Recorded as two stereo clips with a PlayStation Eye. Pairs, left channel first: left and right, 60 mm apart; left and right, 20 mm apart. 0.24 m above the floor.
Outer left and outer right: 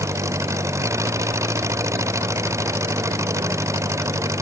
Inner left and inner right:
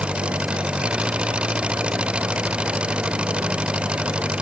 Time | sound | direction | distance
0.0 | an engine running | 55° right (ahead or behind) | ?